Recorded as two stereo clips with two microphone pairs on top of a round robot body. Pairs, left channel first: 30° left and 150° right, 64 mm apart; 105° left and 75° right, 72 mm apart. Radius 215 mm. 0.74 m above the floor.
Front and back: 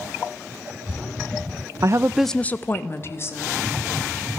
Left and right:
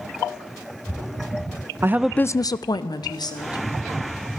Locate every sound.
1.8 s a woman speaking: 135° right, 0.6 m; by 3.6 s 80° left, 1.9 m